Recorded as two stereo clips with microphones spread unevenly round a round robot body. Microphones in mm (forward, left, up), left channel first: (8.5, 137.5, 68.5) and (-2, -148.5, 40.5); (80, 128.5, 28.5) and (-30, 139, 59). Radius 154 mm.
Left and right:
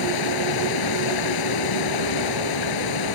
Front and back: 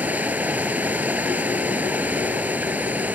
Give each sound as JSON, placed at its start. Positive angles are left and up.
{"t": 0.0, "sound": "running water", "azimuth_deg": 100}